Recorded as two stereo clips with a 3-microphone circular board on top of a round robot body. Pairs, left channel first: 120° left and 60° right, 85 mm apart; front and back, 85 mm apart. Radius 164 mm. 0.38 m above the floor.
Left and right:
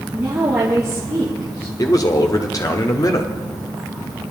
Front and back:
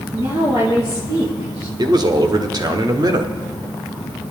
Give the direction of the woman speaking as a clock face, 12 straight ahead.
5 o'clock.